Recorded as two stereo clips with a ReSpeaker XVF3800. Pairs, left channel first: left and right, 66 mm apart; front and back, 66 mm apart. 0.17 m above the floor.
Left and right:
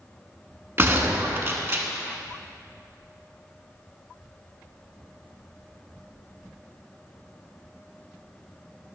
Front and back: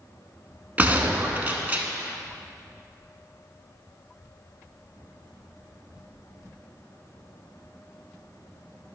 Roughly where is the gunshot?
Behind right.